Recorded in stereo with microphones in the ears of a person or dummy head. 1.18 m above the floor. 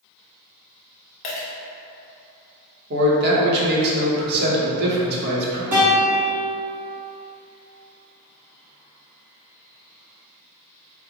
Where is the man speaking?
55° right (ahead or behind), 1.0 m.